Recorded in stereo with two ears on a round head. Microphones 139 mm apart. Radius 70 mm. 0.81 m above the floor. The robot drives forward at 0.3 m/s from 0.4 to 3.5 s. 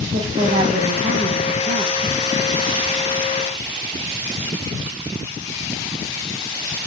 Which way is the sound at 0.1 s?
35° right (ahead or behind).